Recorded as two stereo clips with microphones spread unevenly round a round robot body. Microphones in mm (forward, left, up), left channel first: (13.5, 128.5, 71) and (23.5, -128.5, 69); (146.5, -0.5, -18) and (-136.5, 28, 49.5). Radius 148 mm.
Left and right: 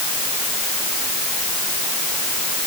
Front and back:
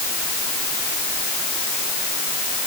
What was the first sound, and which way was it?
Only background noise.